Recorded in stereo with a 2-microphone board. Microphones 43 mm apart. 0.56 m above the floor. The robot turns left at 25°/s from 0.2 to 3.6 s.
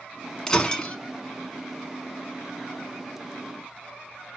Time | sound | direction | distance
0.5 | breaking glass | 15° left (ahead or behind) | 0.5 m